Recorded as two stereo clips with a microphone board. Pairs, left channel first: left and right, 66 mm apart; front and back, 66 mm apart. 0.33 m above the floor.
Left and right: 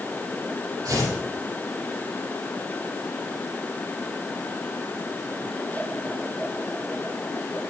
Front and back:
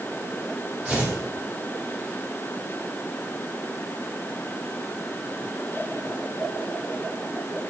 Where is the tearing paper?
125° right, 5.5 m.